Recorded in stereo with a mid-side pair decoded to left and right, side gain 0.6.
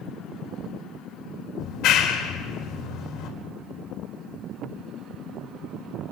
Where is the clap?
65° left, 5 m.